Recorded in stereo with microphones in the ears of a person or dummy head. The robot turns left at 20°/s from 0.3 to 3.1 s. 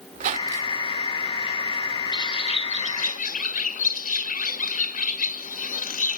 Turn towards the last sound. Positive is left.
turn(degrees=40)  # may be behind; listen again after turning